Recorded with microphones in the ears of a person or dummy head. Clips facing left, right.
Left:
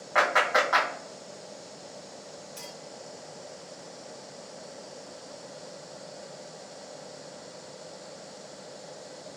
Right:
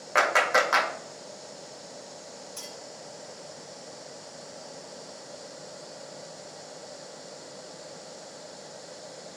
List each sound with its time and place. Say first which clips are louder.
0.1 s a clap: right 1 dB; 45° right (ahead or behind), 1.0 m
2.6 s a clink: even; centre (ahead or behind), 2.0 m